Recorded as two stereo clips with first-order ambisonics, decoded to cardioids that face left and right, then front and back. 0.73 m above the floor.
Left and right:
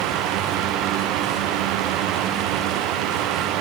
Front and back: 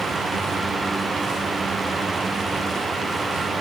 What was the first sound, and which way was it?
Only background noise.